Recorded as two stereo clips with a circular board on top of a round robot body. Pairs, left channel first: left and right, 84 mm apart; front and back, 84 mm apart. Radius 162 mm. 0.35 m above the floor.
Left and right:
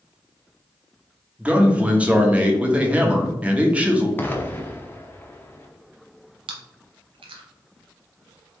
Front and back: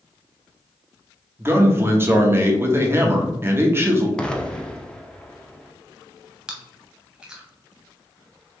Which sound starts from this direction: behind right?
A man speaking, at 1.4 s.